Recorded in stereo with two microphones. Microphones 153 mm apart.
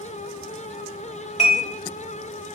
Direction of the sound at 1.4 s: 50° left (ahead or behind).